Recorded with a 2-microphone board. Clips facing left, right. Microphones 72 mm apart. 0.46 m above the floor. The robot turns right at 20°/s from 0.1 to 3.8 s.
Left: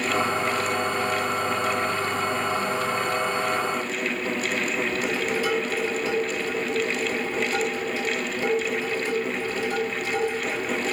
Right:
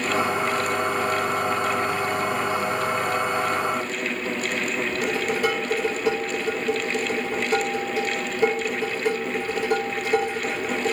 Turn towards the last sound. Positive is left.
turn(degrees=-55)  # may be behind; listen again after turning